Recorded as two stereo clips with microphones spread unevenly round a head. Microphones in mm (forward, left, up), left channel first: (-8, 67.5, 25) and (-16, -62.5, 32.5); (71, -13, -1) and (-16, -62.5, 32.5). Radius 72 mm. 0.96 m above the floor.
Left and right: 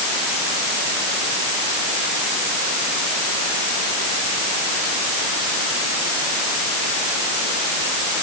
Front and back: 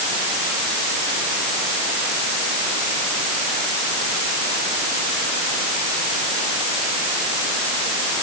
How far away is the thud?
I don't hear a thud.